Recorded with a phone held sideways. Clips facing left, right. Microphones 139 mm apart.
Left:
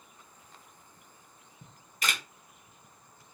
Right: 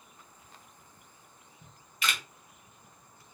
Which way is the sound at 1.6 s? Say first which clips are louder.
Even; 45° left (ahead or behind).